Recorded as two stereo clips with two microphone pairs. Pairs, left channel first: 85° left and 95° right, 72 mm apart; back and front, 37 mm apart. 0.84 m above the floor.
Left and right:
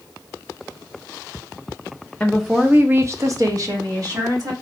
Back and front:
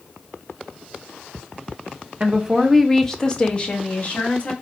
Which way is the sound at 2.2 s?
10° left.